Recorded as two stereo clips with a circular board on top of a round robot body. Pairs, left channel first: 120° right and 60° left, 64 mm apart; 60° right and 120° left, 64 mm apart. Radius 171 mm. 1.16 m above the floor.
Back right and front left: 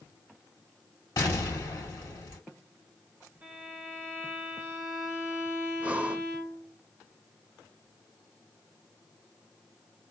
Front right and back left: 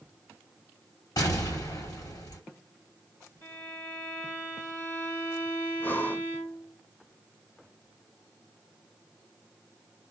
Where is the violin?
5° right, 0.7 m.